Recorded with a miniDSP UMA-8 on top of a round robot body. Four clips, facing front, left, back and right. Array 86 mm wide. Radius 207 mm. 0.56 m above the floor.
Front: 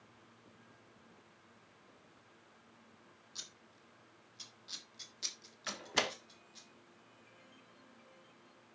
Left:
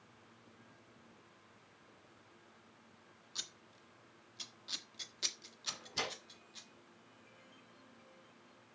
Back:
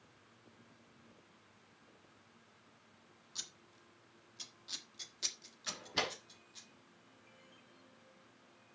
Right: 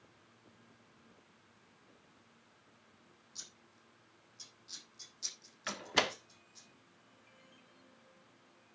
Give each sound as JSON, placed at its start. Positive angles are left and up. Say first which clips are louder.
{"t": 3.4, "sound": "scissors", "louder": "left 8 dB, back 3 dB", "azimuth_deg": 95, "distance_m": 1.7}
{"t": 5.7, "sound": "a door slam", "louder": "right 8 dB, front 3 dB", "azimuth_deg": -75, "distance_m": 1.2}